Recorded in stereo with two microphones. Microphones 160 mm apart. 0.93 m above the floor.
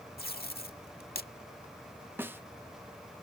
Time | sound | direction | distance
0.2 | tape being pulled | 75° left (ahead or behind) | ?
2.2 | a snare drum | 10° right (ahead or behind) | ?